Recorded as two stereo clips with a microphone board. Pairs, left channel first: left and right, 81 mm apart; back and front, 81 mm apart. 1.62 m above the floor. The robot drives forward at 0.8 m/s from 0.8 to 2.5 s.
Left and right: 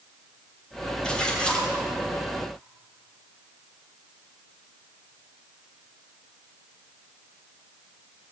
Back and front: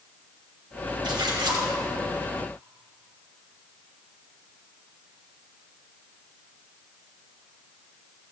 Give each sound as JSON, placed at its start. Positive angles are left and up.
{"t": 1.0, "sound": "a splash", "azimuth_deg": 10, "distance_m": 3.0}